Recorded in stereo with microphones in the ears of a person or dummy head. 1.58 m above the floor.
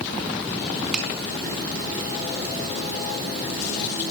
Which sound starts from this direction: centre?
A finger snap, at 0.9 s.